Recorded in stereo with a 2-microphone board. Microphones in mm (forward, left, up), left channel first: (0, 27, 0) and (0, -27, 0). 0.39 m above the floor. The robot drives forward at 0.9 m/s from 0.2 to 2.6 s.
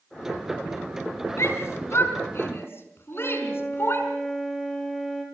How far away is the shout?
About 4.5 m.